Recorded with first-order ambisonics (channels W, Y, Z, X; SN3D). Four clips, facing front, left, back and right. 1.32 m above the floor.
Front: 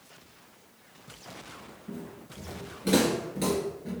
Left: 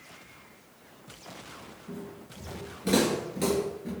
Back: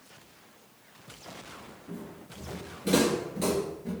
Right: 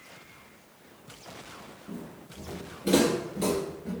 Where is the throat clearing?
No throat clearing in this recording.